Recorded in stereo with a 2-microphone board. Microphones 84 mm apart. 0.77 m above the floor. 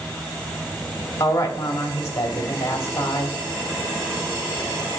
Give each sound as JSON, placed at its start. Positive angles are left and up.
{"t": 1.2, "sound": "a woman speaking", "side_deg": 40, "distance_m": 1.5}